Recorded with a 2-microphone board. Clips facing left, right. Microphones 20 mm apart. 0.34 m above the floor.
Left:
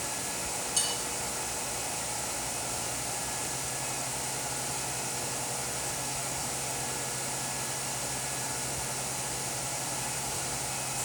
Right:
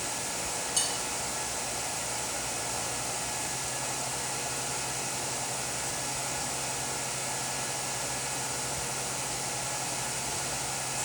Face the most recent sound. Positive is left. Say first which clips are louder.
# even
turn(degrees=-5)  # may be behind; listen again after turning